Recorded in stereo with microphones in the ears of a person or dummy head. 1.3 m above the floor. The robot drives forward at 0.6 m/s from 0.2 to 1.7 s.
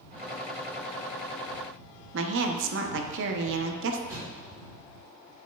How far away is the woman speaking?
About 0.6 m.